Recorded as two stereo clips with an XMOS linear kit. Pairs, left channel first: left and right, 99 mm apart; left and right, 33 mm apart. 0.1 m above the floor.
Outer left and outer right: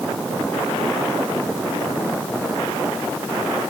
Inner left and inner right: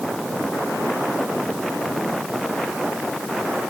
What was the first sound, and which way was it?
Only background noise.